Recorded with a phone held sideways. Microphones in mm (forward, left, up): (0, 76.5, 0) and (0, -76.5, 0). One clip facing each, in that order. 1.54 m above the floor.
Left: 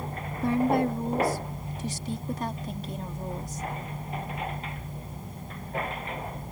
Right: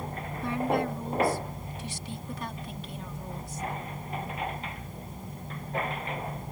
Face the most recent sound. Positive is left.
turn(degrees=40)  # may be behind; listen again after turning